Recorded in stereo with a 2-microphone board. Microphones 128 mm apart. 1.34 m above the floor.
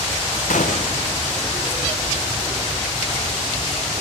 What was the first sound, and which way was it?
A gunshot, 85° left.